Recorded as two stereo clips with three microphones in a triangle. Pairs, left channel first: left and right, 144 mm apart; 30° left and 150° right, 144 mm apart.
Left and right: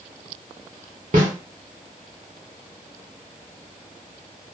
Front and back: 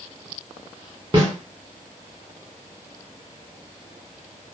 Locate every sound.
1.1 s a snare drum: 105° right, 1.3 m